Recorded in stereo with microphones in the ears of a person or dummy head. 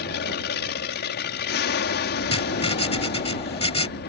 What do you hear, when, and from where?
0.0 s an aircraft: 50° left (ahead or behind)
2.3 s writing: 35° left (ahead or behind)